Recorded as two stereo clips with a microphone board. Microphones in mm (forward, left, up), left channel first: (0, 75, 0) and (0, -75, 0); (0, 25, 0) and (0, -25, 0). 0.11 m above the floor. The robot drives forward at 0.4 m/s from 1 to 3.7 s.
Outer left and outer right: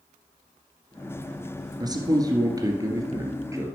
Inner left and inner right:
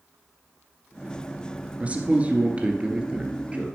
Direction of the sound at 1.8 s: 25° right (ahead or behind).